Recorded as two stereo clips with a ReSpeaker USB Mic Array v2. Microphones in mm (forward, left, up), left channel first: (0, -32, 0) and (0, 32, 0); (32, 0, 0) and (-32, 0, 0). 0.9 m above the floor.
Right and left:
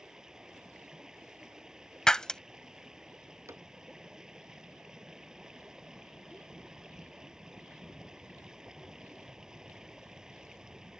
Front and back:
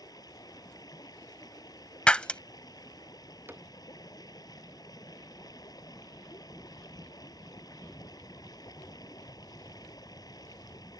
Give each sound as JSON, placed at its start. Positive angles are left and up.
{"t": 0.0, "sound": "running water", "azimuth_deg": 10}
{"t": 2.1, "sound": "breaking glass", "azimuth_deg": -30}
{"t": 3.5, "sound": "a cupboard door", "azimuth_deg": 130}